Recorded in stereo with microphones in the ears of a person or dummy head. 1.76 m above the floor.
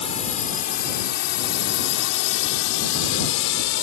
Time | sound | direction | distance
0.0 | a drone | 40° left (ahead or behind) | ?